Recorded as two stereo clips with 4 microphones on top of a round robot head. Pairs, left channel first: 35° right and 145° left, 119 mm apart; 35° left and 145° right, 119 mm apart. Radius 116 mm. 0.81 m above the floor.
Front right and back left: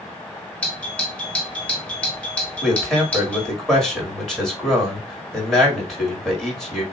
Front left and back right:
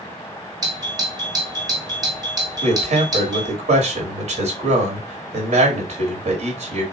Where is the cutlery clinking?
No cutlery clinking in this recording.